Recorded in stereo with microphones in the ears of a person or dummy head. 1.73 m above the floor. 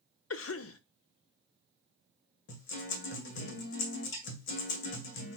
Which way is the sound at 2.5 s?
70° left (ahead or behind).